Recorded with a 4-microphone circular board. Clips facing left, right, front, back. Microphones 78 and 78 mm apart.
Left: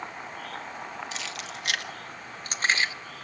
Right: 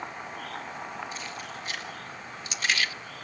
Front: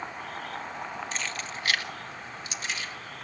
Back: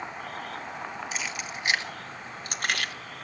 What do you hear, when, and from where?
1.1 s keys jangling: 95° left, 1.1 m; by 2.9 s 155° left, 0.7 m